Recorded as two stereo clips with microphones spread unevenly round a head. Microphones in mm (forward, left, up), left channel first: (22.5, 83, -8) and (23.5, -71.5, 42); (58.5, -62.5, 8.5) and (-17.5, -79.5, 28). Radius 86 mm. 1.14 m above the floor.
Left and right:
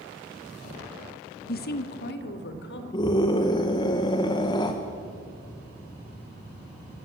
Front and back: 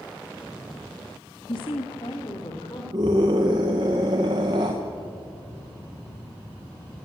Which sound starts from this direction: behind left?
A scream, at 2.9 s.